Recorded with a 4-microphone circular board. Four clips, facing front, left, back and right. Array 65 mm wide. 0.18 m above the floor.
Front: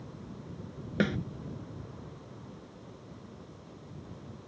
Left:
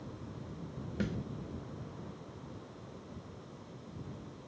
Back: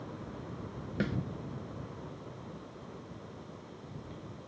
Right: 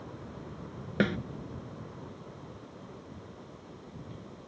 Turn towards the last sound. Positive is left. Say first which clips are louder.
# right 9 dB, front 5 dB
turn(degrees=-65)